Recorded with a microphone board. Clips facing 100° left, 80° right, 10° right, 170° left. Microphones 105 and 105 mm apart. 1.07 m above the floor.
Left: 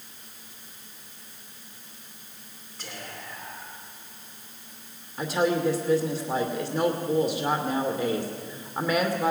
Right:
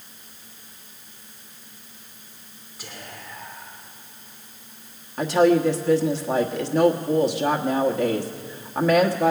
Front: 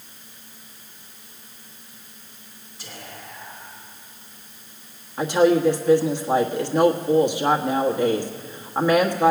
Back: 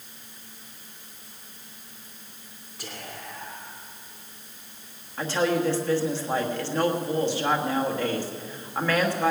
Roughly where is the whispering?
Behind.